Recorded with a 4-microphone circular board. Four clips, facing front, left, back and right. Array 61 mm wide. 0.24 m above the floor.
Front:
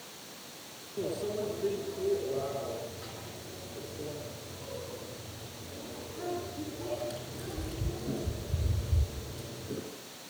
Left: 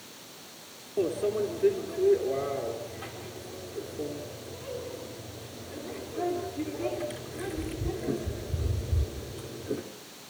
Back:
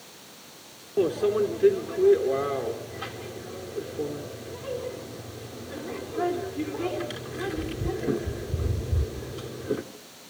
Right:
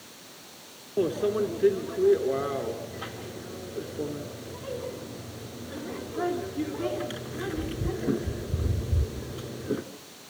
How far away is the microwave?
About 3 m.